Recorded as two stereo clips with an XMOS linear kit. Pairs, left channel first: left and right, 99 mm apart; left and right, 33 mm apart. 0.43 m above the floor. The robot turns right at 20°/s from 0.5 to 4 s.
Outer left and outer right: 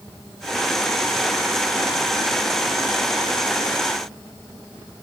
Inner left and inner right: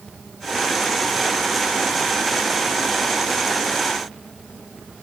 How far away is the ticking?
No ticking in this recording.